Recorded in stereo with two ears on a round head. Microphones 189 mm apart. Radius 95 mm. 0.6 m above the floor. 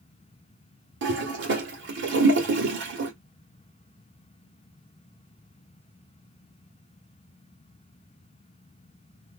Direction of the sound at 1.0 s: 55° right (ahead or behind).